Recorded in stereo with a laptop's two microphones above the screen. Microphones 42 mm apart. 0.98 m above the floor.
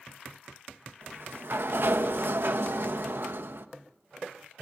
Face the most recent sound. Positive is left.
turn(degrees=-60)  # may be behind; listen again after turning